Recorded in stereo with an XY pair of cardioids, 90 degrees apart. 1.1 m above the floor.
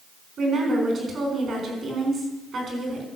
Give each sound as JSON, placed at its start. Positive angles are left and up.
{"t": 0.4, "sound": "a woman speaking", "azimuth_deg": -60, "distance_m": 4.5}